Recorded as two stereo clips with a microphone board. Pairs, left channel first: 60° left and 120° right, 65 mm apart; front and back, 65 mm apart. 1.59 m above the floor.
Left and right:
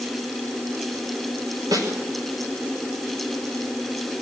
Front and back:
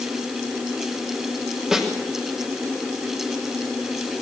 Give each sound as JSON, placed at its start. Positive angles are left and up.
{"t": 1.7, "sound": "a snare drum", "azimuth_deg": -100, "distance_m": 5.5}